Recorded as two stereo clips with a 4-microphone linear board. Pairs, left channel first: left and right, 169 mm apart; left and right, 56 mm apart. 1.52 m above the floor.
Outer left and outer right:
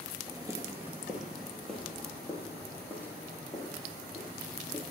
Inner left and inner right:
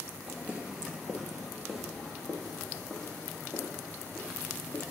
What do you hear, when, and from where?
0.3 s footsteps: 25° right (ahead or behind), 1.7 m; by 4.8 s 15° left (ahead or behind), 7.5 m